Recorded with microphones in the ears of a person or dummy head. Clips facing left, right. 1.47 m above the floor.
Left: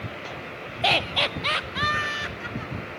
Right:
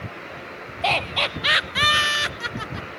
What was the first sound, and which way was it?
Laughter, 20° left (ahead or behind).